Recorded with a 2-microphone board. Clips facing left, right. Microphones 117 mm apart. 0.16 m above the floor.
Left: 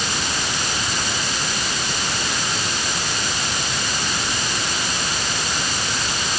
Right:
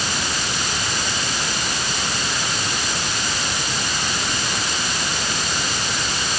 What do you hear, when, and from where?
Only background noise.